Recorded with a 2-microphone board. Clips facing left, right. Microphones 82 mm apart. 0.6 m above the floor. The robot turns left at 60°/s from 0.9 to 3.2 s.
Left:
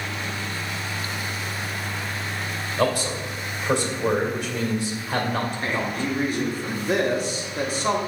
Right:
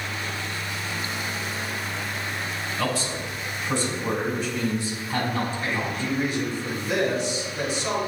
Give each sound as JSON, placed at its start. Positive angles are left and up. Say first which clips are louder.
{"t": 2.8, "sound": "a man speaking", "louder": "left 5 dB", "side_deg": 55, "distance_m": 2.5}
{"t": 5.6, "sound": "a man speaking", "louder": "left 2 dB", "side_deg": 45, "distance_m": 1.6}